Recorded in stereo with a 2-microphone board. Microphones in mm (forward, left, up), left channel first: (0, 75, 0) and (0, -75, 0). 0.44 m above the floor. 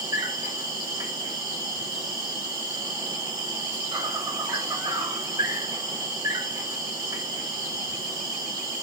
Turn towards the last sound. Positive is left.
turn(degrees=-25)  # may be behind; listen again after turning